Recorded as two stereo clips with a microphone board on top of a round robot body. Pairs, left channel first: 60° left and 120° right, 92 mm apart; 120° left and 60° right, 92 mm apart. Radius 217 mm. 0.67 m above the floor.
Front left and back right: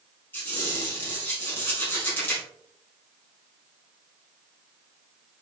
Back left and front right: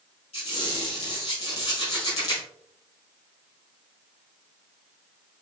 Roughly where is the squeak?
Behind left.